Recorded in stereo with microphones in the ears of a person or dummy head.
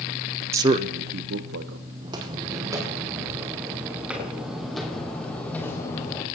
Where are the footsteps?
30° right (ahead or behind), 3.5 m; by 6.2 s 20° left (ahead or behind), 3 m.